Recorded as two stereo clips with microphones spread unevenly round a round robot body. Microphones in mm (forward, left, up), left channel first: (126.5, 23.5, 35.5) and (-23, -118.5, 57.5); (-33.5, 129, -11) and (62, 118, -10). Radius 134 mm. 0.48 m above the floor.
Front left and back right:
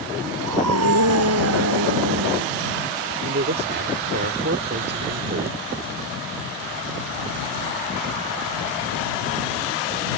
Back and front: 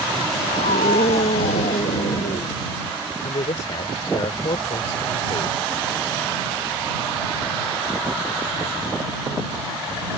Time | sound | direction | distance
0.4 | a scream | 150° right | ?
3.2 | a man speaking | 160° right | ?